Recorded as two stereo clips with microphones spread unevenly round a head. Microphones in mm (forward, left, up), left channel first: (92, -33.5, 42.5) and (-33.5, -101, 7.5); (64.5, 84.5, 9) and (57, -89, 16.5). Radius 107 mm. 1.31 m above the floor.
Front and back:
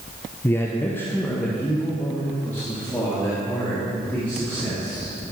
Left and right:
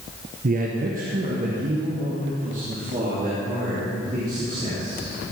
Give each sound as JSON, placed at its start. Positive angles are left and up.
{"t": 0.4, "sound": "a man speaking", "azimuth_deg": -50, "distance_m": 0.9}